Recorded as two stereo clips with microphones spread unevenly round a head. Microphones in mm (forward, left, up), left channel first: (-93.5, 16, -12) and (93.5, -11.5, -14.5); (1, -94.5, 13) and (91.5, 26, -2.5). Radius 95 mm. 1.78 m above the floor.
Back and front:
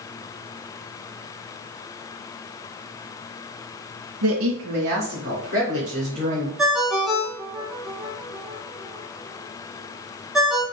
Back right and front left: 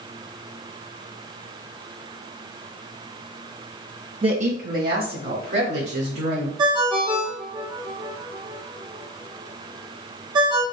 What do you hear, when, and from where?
4.2 s a woman speaking: 10° right, 0.6 m; by 6.5 s 45° left, 3 m
6.6 s a ringtone: 80° left, 1.0 m